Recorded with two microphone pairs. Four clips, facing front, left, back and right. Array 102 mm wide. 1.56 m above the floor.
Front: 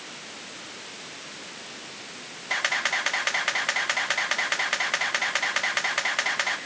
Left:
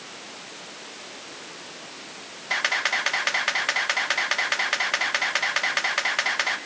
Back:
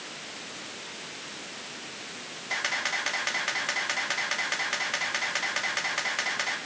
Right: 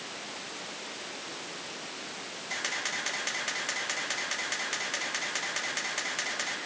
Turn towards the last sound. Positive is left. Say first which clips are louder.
# left 10 dB, front 4 dB
turn(degrees=65)